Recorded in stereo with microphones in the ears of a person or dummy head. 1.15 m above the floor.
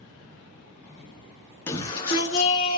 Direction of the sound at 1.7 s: 15° left (ahead or behind).